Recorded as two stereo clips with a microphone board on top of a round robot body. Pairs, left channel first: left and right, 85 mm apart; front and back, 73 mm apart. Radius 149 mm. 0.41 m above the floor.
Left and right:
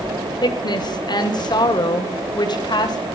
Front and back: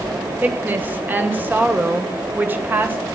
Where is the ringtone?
I don't hear a ringtone.